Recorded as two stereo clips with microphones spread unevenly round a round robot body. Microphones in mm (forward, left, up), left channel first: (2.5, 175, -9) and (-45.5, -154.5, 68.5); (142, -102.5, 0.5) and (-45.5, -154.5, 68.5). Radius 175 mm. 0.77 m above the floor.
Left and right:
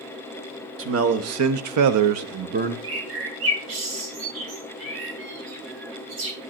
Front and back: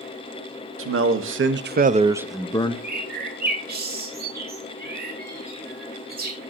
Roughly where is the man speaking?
Behind right.